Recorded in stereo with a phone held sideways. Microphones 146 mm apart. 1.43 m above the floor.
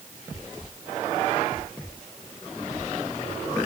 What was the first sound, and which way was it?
Only background noise.